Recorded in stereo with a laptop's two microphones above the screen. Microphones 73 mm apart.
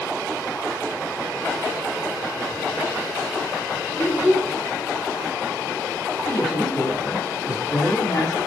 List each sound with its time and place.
4.0 s a child speaking: 30° right (ahead or behind), 1.9 m
6.3 s a man speaking: 35° left (ahead or behind), 1.6 m